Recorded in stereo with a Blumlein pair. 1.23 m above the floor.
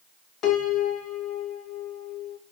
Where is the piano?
30° left, 0.9 m.